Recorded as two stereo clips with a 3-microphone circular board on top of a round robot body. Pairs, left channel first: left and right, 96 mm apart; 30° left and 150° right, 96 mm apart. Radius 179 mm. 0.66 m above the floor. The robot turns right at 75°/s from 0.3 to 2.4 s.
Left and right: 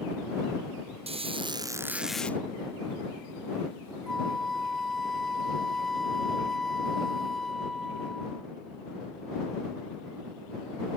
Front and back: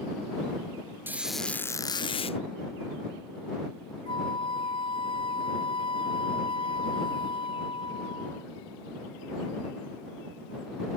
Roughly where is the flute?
Ahead.